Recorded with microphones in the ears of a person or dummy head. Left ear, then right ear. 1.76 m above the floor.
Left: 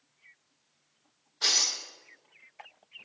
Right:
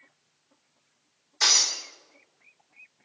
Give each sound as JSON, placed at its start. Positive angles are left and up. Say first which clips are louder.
{"t": 1.4, "sound": "breaking glass", "louder": "right 4 dB", "side_deg": -55, "distance_m": 3.5}